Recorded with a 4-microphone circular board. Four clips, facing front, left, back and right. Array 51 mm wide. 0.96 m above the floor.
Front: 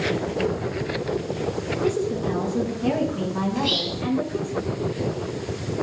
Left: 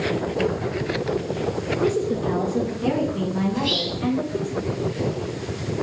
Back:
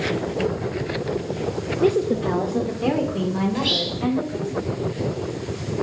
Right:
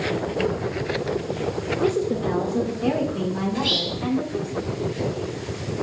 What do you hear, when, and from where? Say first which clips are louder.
1.8 s a woman speaking: even, back 5 dB; 170° right, 0.7 m; by 4.5 s 175° right, 4.5 m
3.5 s whispering: even, back 1 dB; 145° right, 2.5 m